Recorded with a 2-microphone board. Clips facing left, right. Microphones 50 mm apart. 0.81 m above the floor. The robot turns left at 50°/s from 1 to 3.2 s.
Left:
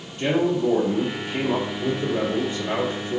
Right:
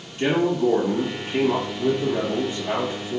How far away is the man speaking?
About 1.4 m.